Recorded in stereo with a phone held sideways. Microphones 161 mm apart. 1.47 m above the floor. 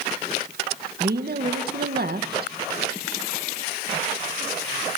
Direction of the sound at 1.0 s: 70° right (ahead or behind).